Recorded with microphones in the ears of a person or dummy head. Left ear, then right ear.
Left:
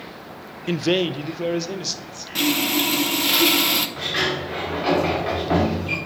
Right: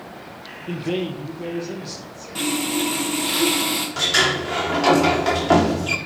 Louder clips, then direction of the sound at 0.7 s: Left 5 dB; 60° left (ahead or behind).